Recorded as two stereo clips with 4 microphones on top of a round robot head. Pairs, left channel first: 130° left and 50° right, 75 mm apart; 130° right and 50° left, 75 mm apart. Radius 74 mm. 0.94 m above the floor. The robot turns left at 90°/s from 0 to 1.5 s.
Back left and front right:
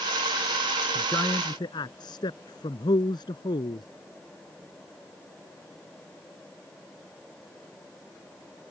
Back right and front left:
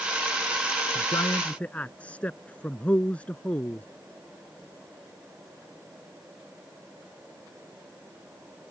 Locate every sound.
0.9 s a man speaking: 155° right; by 3.9 s 155° left